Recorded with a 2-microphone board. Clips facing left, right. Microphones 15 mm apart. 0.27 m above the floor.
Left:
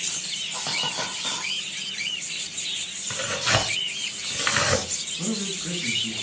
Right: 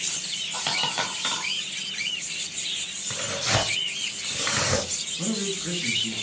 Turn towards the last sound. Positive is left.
turn(degrees=0)  # may be behind; listen again after turning